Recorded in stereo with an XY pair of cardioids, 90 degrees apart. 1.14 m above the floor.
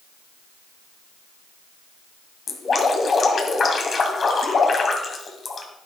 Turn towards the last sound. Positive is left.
turn(degrees=45)